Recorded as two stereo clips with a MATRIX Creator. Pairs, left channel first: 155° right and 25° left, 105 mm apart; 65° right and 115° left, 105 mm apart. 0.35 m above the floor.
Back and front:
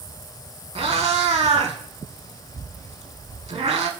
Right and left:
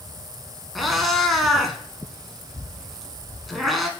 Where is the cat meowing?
25° left, 0.6 m.